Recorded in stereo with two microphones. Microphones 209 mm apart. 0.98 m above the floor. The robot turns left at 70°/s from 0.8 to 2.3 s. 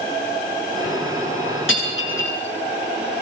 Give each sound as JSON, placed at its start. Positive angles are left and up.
{"t": 1.7, "sound": "breaking glass", "side_deg": 75, "distance_m": 9.0}